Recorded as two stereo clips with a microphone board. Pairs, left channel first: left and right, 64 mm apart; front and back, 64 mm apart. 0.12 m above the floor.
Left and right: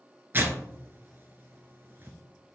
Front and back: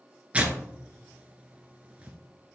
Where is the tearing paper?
125° right, 0.8 m.